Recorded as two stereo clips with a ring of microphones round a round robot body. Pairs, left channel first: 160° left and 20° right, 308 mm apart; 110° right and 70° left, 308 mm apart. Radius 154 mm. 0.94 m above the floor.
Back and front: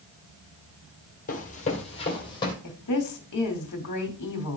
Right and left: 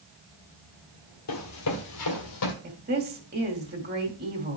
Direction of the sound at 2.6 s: 125° left.